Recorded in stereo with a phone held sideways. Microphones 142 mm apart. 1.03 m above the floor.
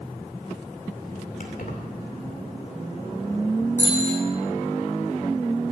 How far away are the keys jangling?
About 2 m.